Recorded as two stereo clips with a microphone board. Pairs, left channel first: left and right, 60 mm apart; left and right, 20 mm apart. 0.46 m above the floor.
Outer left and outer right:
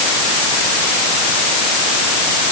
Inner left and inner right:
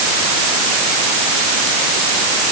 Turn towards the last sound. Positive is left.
No sound to turn to.